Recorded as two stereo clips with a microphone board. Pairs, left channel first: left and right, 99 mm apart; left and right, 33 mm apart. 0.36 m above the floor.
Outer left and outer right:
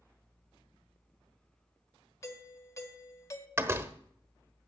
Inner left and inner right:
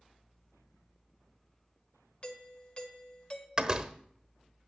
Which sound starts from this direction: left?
A doorbell, at 2.2 s.